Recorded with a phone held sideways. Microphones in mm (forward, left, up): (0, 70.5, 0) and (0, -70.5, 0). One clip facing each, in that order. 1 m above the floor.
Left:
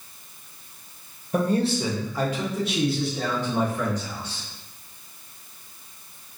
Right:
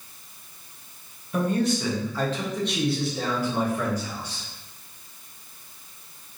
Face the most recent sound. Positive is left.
turn(degrees=-15)  # may be behind; listen again after turning